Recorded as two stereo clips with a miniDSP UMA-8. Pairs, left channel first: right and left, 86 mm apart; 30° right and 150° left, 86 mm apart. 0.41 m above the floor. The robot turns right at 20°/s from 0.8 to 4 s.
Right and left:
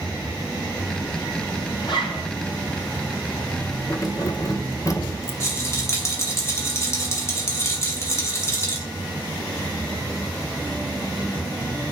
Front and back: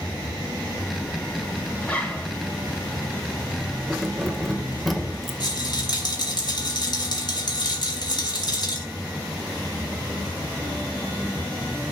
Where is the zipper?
110° right, 4 m; by 2.3 s 100° right, 4 m.